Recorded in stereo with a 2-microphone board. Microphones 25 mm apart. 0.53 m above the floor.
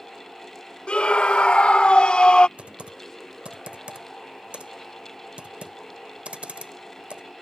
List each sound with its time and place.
0.9 s a scream: 50° left (ahead or behind); by 2.5 s 45° left (ahead or behind)
2.6 s typing on a keyboard: 55° right (ahead or behind)